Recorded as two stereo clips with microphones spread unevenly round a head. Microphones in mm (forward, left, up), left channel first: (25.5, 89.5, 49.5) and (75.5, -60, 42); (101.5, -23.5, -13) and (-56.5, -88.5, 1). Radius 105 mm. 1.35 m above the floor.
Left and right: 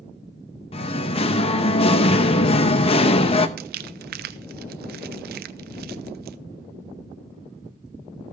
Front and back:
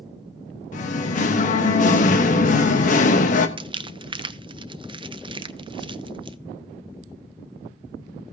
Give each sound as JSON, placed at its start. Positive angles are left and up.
{"t": 0.7, "sound": "singing", "azimuth_deg": 65, "distance_m": 0.8}
{"t": 3.6, "sound": "crumpling", "azimuth_deg": -95, "distance_m": 0.6}